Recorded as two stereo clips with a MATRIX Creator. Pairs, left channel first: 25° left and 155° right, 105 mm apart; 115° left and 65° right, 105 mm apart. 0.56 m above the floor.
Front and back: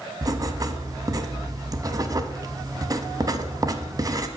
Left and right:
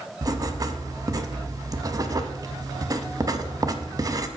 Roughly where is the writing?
Behind right.